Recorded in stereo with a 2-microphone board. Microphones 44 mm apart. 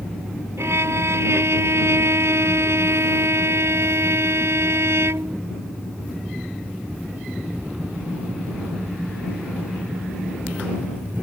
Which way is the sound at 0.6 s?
80° right.